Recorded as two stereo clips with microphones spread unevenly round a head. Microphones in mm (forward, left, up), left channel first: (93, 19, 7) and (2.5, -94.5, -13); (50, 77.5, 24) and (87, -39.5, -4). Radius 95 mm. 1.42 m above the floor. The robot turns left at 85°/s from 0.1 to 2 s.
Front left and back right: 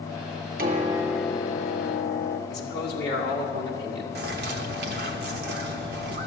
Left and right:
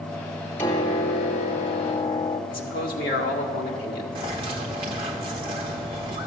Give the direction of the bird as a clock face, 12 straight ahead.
4 o'clock.